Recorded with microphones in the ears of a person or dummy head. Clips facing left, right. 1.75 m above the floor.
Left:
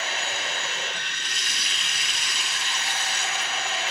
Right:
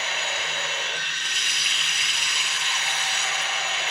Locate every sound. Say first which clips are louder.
0.0 s running water: even; 35° left (ahead or behind), 4.5 m